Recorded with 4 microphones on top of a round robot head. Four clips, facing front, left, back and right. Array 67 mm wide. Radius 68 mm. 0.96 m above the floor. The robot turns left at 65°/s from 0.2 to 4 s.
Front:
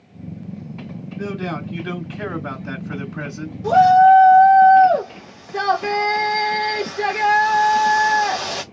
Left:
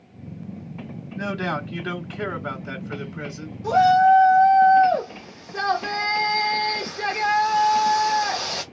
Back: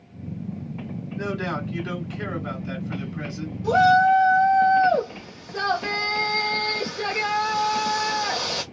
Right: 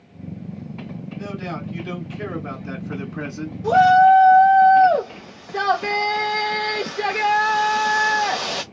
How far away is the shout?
About 1.1 m.